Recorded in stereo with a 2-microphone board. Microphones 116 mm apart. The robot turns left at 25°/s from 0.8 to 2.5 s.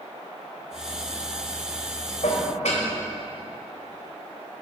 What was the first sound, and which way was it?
Dishes clattering, 85° left.